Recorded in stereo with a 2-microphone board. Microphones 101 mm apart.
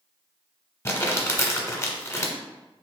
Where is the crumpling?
30° left (ahead or behind), 0.6 m.